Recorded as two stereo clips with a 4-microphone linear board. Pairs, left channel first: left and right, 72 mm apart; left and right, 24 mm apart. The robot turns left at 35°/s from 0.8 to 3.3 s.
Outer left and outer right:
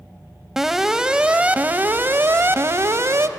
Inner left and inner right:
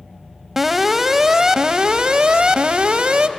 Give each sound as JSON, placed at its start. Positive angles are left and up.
{"t": 0.6, "sound": "an alarm", "azimuth_deg": -10, "distance_m": 0.7}